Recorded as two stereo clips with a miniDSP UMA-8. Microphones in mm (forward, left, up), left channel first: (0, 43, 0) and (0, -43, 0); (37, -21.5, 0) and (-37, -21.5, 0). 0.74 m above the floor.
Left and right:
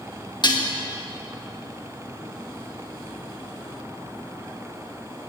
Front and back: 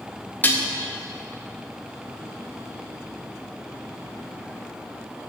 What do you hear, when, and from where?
0.4 s dishes clattering: 60° left, 0.6 m